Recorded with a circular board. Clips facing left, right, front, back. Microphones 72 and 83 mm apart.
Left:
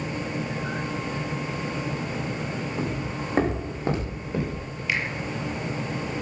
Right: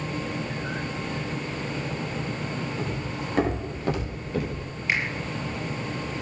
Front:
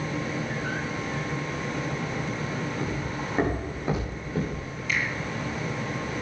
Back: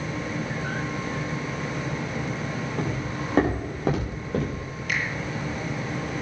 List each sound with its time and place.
2.8 s footsteps: 155° left, 9 m; by 4.6 s 160° left, 10 m
4.9 s a finger snap: 155° right, 5.5 m